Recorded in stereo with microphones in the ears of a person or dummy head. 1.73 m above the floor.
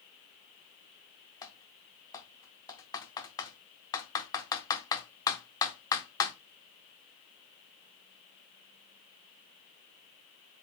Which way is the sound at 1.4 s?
20° left (ahead or behind).